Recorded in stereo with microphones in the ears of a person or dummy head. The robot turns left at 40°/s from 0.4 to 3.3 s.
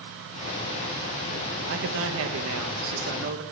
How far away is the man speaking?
About 1.0 m.